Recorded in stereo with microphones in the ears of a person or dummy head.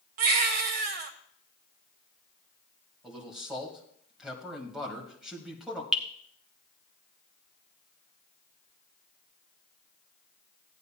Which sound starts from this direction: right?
A baby crying, at 0.2 s.